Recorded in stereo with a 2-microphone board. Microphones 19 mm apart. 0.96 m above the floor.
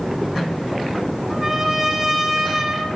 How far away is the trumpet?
About 5 m.